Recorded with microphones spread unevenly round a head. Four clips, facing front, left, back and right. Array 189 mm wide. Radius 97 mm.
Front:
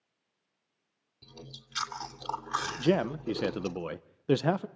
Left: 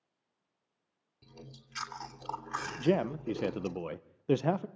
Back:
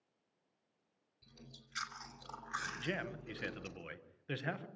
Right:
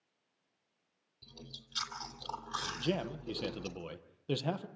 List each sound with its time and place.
1.2 s chewing: 25° left, 3 m
2.8 s a man speaking: 30° left, 1.0 m